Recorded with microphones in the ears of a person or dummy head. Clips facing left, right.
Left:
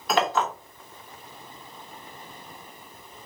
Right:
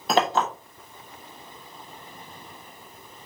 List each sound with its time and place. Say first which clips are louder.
0.1 s a clink: right 2 dB; 25° right (ahead or behind), 1.2 m